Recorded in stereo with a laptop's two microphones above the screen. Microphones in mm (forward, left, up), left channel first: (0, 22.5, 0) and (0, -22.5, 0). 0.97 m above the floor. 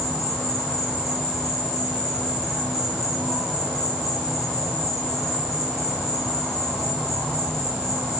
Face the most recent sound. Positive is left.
turn(degrees=5)  # may be behind; listen again after turning